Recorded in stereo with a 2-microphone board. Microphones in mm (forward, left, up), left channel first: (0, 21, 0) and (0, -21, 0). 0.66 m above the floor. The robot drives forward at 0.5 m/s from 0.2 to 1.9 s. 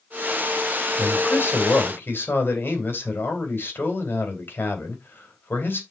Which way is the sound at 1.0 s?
70° left (ahead or behind).